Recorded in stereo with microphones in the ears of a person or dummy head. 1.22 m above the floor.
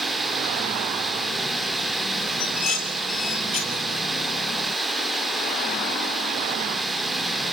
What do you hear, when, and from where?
0.0 s running water: 5° left (ahead or behind), 2 m
2.4 s dishes clattering: 40° left (ahead or behind), 2.5 m